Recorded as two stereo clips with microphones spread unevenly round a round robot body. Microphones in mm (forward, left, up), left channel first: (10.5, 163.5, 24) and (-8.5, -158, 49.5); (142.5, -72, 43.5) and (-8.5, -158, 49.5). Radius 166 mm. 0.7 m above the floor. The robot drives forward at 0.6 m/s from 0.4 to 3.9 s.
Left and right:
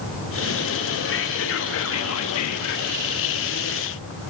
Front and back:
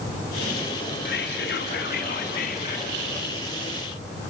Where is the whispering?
40° left, 2 m; by 3.1 s 75° left, 1.5 m.